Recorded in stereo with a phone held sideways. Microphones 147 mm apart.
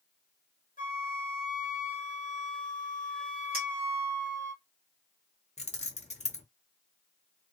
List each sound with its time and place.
0.8 s a flute: 65° left (ahead or behind), 0.7 m
3.5 s a clink: 85° right, 1.4 m
5.6 s keys jangling: 50° left (ahead or behind), 0.5 m